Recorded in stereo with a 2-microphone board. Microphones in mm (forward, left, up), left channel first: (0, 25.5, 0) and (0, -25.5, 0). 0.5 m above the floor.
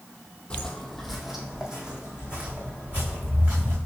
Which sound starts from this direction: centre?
Footsteps, at 0.5 s.